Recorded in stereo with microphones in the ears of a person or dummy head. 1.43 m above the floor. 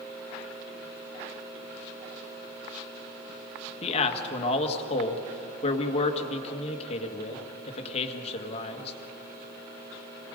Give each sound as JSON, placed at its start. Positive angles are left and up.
{"t": 3.8, "sound": "a man speaking", "side_deg": 35, "distance_m": 1.7}